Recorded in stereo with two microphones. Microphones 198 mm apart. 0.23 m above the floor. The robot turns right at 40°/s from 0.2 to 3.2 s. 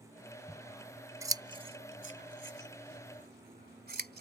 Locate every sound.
0.5 s scissors: 5° left (ahead or behind); by 4.2 s 55° right (ahead or behind)